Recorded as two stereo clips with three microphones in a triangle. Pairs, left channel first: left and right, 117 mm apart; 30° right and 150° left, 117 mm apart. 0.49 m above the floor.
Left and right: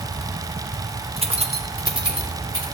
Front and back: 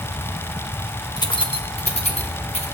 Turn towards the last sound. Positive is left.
turn(degrees=-50)